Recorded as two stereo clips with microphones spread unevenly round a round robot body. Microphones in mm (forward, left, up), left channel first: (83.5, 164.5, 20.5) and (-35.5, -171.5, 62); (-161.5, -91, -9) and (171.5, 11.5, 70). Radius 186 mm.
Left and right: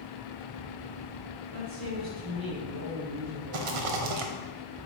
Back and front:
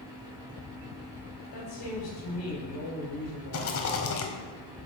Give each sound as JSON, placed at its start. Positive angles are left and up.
{"t": 1.5, "sound": "a woman speaking", "azimuth_deg": -140, "distance_m": 2.5}
{"t": 3.5, "sound": "a rattle", "azimuth_deg": -110, "distance_m": 0.9}